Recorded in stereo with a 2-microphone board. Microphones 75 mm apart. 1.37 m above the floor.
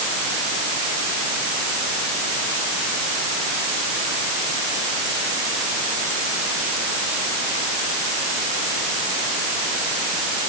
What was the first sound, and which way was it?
Only background noise.